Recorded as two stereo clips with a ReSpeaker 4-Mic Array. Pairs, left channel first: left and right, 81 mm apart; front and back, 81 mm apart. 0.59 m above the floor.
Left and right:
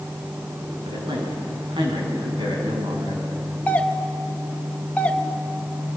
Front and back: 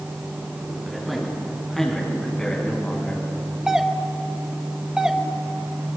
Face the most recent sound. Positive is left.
turn(degrees=120)